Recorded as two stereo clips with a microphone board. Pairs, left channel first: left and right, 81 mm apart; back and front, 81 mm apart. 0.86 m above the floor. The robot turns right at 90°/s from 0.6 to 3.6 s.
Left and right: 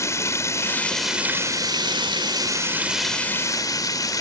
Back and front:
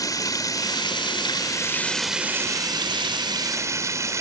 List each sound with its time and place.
0.0 s running water: 140° left; by 4.2 s 50° left